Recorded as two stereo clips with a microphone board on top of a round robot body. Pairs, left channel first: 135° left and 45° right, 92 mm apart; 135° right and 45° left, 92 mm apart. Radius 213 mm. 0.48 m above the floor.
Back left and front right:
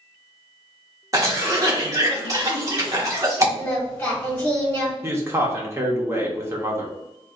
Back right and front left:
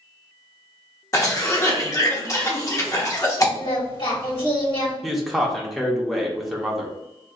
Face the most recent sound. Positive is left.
turn(degrees=-40)